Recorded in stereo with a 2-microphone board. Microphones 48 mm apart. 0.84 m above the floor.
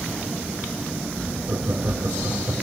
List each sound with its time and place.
1.5 s laughter: 45° right (ahead or behind), 2 m